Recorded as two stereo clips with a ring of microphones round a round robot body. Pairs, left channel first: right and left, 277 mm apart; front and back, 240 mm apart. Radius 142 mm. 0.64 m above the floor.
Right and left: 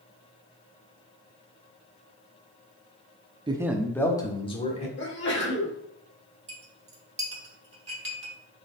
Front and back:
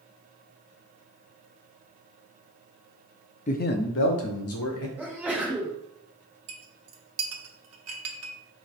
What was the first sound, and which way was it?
A man speaking, 30° left.